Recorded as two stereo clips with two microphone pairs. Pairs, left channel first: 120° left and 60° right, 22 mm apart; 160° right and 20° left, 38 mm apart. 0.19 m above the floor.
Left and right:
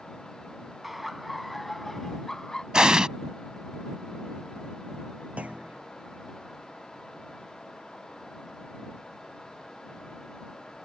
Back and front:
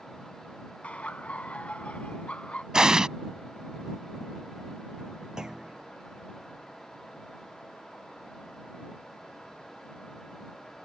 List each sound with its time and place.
0.8 s laughter: 135° right; by 2.6 s 165° left
2.7 s an explosion: 40° right
5.4 s a clunk: 55° right